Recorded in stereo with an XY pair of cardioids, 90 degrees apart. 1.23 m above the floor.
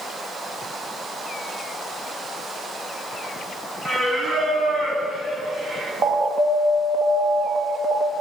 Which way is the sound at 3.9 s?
50° right.